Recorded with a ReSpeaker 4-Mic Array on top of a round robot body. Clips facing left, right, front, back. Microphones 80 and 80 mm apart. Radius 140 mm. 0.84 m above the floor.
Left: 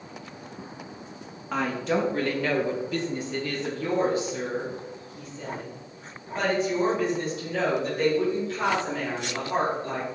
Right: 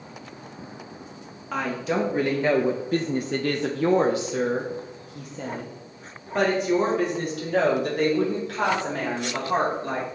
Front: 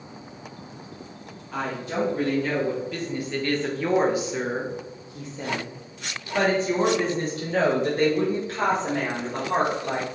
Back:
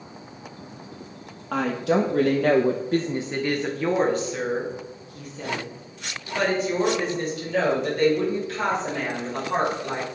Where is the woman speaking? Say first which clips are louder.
Even, back 6 dB; 175° left, 1.0 m; by 10.1 s 50° right, 4 m.